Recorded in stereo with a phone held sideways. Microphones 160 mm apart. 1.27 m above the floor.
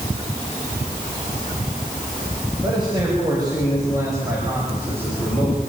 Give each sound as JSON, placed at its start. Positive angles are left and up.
{"t": 2.6, "sound": "a man speaking", "side_deg": -30, "distance_m": 7.0}